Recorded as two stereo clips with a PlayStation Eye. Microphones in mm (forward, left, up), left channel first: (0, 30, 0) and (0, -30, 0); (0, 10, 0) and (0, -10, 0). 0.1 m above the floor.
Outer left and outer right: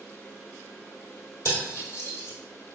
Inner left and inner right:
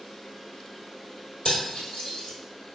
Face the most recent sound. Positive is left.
turn(degrees=40)  # may be behind; listen again after turning